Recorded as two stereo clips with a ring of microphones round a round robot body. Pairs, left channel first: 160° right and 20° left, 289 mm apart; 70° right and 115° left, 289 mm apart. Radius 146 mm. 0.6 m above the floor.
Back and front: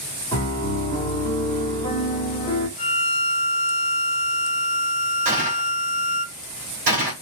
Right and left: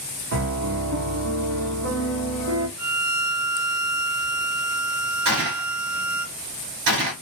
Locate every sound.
0.3 s a piano: 130° left, 1.3 m
2.8 s a violin: 165° right, 0.7 m
5.2 s a gunshot: 85° left, 2 m